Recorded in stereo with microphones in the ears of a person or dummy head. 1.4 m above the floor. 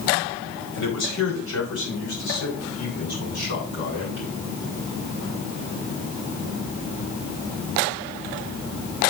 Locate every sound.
0.7 s a man speaking: 80° left, 4.5 m; by 4.3 s 60° left (ahead or behind), 7.5 m